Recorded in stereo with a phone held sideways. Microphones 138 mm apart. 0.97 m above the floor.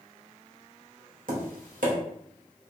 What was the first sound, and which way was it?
Tapping, 85° right.